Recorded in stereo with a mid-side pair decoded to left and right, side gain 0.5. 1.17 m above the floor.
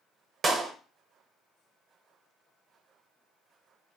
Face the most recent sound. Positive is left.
turn(degrees=-35)